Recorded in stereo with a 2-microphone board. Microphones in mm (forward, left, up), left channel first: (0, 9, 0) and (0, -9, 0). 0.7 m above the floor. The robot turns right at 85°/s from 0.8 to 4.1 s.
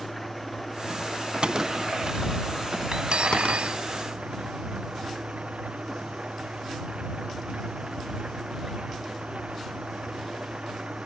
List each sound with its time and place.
0.0 s an engine running: straight ahead; by 11.1 s 80° right
1.4 s a gunshot: 60° right (ahead or behind); by 3.8 s 40° left (ahead or behind)
2.9 s cutlery clinking: 140° right; by 3.8 s 65° right